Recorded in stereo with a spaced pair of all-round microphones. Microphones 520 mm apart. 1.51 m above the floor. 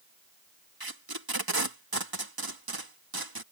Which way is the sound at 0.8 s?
45° right (ahead or behind).